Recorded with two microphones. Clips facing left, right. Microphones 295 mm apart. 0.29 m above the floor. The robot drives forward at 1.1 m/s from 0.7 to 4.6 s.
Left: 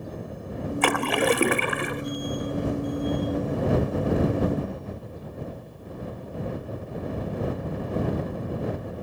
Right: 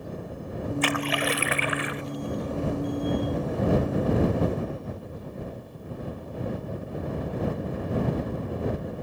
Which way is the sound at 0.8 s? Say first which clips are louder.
Left 6 dB; 65° left (ahead or behind).